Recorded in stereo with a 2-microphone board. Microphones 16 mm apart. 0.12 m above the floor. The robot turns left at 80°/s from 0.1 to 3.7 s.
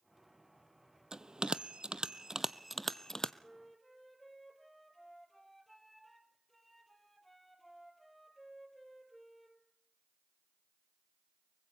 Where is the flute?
Centre (ahead or behind), 2.5 m; by 9.6 s 20° left (ahead or behind), 2.5 m.